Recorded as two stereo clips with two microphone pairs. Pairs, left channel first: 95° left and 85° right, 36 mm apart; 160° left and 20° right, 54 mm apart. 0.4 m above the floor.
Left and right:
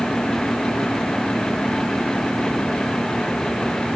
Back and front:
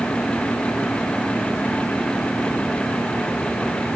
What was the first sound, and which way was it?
Only background noise.